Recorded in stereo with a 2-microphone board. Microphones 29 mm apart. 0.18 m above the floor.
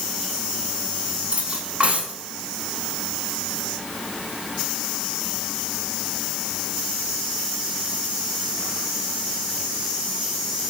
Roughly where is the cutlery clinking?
Right.